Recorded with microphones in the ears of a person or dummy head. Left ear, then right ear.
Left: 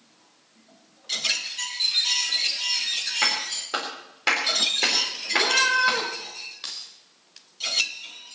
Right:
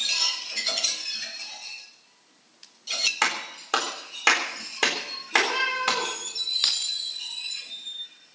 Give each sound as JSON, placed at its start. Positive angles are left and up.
{"t": 3.2, "sound": "a clap", "side_deg": -40, "distance_m": 3.5}
{"t": 5.3, "sound": "a cat meowing", "side_deg": 20, "distance_m": 5.5}
{"t": 6.6, "sound": "keys jangling", "side_deg": -35, "distance_m": 1.3}